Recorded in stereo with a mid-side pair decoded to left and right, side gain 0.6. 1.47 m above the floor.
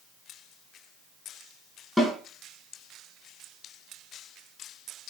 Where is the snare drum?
15° left, 5 m.